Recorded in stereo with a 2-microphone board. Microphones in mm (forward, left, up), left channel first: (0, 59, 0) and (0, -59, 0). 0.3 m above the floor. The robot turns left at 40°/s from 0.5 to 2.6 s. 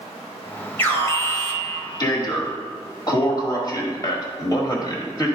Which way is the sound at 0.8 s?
150° left.